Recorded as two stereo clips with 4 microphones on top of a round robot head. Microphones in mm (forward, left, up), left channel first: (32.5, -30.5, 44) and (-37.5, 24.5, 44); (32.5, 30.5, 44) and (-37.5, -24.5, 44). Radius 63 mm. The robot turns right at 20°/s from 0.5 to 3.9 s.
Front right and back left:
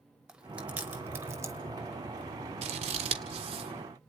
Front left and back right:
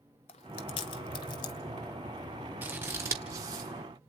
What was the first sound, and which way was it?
Chewing, 60° left.